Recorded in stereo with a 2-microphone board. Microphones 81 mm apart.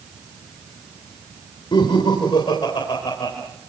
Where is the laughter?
90° left, 4 m; by 3.3 s 85° left, 4.5 m.